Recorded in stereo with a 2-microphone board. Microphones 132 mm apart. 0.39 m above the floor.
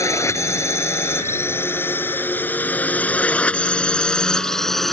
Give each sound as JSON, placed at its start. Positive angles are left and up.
{"t": 0.0, "sound": "a drone", "side_deg": 25}